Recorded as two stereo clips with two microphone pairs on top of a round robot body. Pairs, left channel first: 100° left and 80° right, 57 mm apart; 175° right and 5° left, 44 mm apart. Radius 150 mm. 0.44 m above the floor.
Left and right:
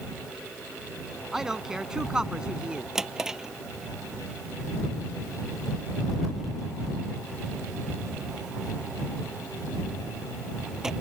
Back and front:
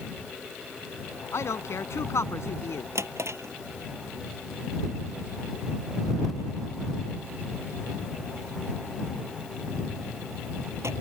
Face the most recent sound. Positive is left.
turn(degrees=0)